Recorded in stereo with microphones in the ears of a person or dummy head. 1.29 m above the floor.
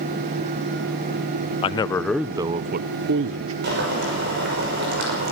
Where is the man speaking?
30° left (ahead or behind), 0.6 m; by 3.5 s 70° right (ahead or behind), 0.9 m.